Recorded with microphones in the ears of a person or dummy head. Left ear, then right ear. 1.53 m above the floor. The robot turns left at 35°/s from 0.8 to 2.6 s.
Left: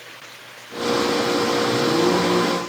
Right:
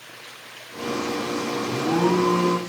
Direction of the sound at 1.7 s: 85° right.